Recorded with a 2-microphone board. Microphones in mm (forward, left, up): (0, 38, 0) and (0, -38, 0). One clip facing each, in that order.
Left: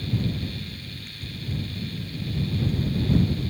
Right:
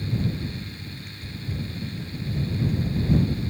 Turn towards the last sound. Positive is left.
No sound to turn to.